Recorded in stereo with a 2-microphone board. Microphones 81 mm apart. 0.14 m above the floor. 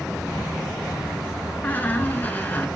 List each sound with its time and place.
1.6 s a squeak: 25° left (ahead or behind), 1.0 m